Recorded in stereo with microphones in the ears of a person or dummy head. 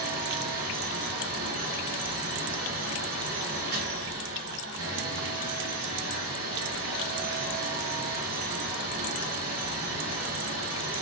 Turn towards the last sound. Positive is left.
turn(degrees=-55)  # may be behind; listen again after turning